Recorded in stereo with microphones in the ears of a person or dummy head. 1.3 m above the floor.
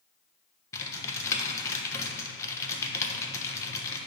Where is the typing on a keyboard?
15° left (ahead or behind), 1.0 m.